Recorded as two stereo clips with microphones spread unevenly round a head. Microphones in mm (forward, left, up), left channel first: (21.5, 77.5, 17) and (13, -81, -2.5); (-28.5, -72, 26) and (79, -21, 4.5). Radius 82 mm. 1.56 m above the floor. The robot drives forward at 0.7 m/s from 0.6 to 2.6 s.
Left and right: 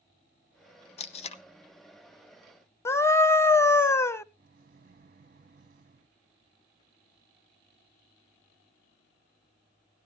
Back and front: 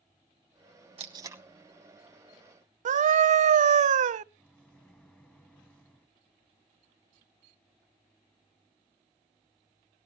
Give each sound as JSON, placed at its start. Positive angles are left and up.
{"t": 1.0, "sound": "tape being pulled", "azimuth_deg": 75, "distance_m": 0.7}
{"t": 2.9, "sound": "a scream", "azimuth_deg": 10, "distance_m": 0.5}
{"t": 4.4, "sound": "a microwave", "azimuth_deg": -100, "distance_m": 0.7}